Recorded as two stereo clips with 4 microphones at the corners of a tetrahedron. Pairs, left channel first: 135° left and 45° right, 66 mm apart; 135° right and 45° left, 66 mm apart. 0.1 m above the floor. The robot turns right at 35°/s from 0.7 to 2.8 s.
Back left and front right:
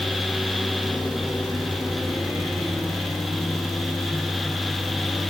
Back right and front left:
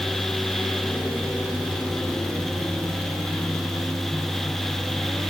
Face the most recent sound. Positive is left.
No sound to turn to.